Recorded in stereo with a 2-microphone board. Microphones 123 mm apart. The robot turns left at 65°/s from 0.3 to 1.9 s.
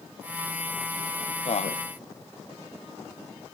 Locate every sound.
1.4 s a man speaking: 55° left (ahead or behind), 0.7 m; by 1.8 s 75° left (ahead or behind), 0.7 m